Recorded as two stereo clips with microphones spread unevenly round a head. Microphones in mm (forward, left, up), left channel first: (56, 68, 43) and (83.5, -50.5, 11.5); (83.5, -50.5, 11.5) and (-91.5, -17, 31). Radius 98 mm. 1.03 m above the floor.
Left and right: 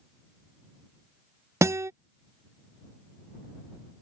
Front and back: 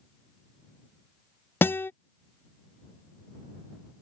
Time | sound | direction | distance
1.6 | a guitar | 70° right | ?